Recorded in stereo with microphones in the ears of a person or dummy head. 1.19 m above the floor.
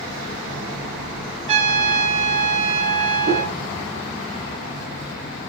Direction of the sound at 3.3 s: 40° right (ahead or behind).